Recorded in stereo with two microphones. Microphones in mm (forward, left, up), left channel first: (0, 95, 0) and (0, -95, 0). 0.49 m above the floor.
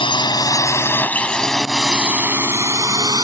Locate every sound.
0.0 s a drone: 25° left (ahead or behind); by 3.2 s 20° right (ahead or behind)